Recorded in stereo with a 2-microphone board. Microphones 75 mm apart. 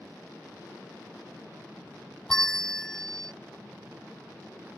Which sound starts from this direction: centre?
A bell, at 2.3 s.